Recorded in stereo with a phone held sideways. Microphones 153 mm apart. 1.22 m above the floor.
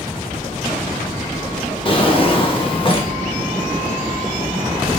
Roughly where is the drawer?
Left.